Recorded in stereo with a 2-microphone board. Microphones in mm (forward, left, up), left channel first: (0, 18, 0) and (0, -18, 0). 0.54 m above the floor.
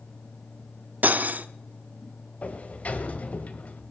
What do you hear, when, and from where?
1.0 s cutlery clinking: 50° right (ahead or behind), 0.8 m
2.4 s a sliding door: 40° left (ahead or behind), 1.5 m